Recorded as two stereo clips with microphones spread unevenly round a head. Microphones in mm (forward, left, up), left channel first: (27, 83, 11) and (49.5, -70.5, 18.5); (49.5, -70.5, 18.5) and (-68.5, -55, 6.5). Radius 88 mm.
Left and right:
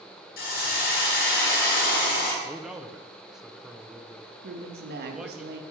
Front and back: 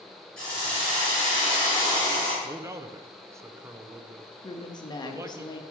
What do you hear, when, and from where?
0.4 s a hiss: 75° left, 3 m
2.4 s a man speaking: 170° right, 0.6 m
4.4 s a woman speaking: 65° right, 1.3 m